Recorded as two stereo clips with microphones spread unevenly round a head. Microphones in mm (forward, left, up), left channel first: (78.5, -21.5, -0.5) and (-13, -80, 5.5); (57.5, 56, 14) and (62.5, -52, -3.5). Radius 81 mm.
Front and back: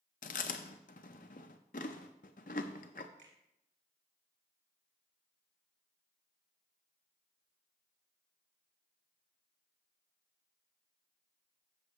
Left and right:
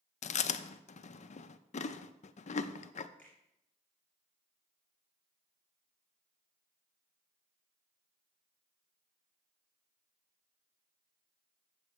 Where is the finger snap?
175° left, 3 m.